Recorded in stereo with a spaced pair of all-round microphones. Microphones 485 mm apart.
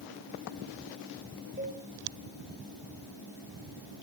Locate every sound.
1.6 s a cowbell: 20° right (ahead or behind), 5 m